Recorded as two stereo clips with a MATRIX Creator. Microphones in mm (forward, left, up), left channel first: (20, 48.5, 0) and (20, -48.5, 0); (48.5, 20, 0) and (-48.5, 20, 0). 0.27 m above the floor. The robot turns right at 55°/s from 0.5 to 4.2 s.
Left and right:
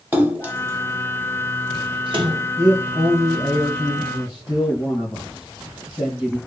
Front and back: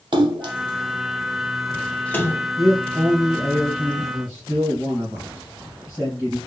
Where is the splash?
155° right, 0.6 m; by 2.4 s 50° right, 0.6 m.